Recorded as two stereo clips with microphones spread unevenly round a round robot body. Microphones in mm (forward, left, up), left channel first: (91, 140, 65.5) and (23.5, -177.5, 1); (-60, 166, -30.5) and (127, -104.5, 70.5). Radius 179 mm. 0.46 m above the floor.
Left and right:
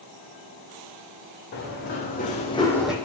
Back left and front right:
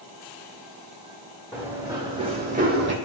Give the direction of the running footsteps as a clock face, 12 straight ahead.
11 o'clock.